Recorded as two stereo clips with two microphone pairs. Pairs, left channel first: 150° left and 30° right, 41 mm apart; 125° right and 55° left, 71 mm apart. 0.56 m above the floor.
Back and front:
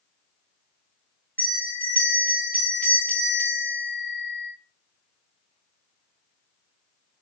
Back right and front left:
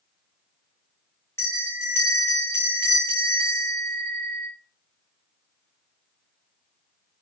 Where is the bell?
170° right, 1.2 m.